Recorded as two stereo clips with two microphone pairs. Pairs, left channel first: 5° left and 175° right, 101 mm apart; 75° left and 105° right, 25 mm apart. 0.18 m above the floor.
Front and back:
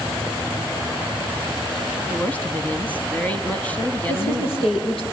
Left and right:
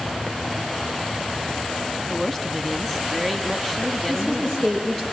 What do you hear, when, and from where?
2.1 s a woman speaking: 10° left, 1.0 m
4.1 s a woman speaking: straight ahead, 7 m